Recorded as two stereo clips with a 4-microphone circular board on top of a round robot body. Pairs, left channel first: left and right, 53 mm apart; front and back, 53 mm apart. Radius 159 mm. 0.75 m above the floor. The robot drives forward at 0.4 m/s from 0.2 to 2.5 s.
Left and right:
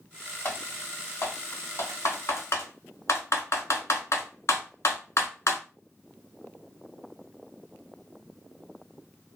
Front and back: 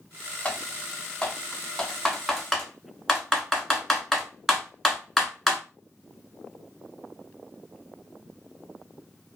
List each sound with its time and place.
0.5 s typing on a keyboard: 60° left, 1.7 m; by 5.6 s 95° left, 1.5 m